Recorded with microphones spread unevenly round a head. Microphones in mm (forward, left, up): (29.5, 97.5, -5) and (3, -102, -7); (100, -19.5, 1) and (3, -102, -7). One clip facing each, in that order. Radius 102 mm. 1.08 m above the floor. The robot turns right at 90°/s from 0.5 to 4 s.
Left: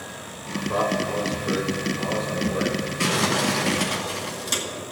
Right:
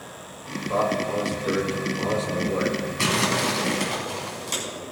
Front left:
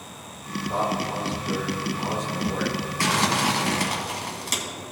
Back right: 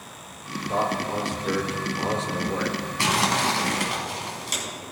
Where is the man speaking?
130° left, 3 m; by 2.9 s 30° right, 3 m.